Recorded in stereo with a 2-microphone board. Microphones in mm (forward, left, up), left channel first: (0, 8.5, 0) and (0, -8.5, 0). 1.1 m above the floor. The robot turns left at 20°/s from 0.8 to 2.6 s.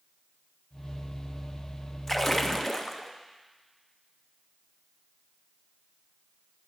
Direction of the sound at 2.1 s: 20° left (ahead or behind).